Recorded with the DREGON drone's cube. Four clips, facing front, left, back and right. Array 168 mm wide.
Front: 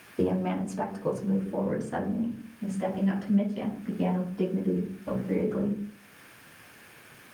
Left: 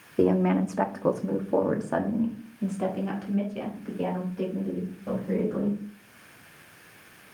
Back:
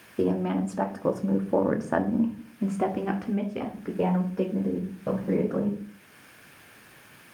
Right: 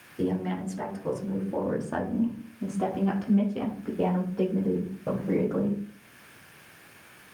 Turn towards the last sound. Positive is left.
turn(degrees=-150)